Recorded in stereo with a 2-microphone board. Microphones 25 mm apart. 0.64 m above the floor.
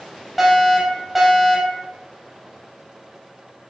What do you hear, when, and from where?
0.4 s a fire alarm: 5° right (ahead or behind), 5.5 m